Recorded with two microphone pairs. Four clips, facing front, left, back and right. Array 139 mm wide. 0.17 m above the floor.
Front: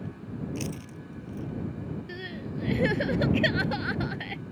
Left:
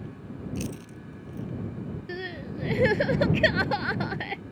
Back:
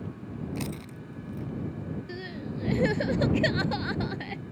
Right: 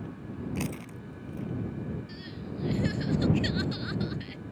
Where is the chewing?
120° right.